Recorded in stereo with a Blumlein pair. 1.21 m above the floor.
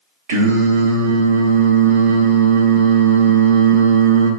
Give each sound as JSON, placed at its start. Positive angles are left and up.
{"t": 0.3, "sound": "singing", "azimuth_deg": -60, "distance_m": 0.7}